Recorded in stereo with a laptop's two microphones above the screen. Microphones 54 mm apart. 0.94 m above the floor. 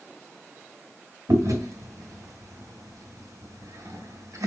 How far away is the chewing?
About 2.5 m.